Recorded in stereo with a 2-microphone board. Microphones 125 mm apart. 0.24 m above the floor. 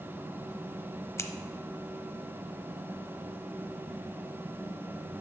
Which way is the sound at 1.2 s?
20° left (ahead or behind).